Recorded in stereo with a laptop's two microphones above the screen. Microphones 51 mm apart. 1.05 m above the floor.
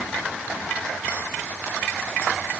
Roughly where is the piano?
No piano in this recording.